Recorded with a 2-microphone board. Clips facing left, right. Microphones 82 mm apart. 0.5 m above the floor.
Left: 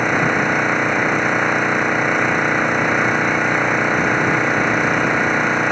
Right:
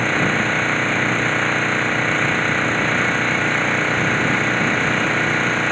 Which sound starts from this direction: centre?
An engine running, at 0.0 s.